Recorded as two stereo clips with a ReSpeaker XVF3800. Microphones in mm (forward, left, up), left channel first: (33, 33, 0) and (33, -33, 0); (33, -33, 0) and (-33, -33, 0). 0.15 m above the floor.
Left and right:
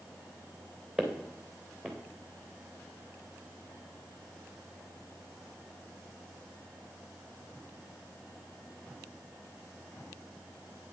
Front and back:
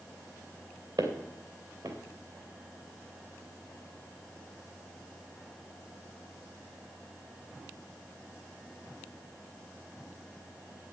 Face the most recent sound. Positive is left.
turn(degrees=-175)